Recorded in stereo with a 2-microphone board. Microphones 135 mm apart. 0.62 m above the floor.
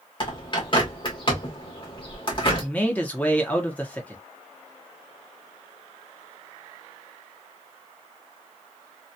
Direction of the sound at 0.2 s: 35° left (ahead or behind).